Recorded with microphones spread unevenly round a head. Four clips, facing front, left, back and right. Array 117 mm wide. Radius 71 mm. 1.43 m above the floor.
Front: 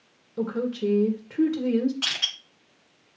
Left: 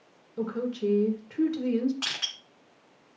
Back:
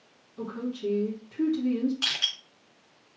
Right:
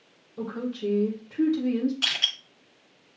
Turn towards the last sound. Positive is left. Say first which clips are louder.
# right 4 dB, front 1 dB
turn(degrees=95)